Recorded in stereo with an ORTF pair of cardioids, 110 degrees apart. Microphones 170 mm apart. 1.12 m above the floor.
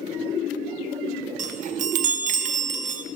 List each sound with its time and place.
1.4 s a chime: 45° right, 0.7 m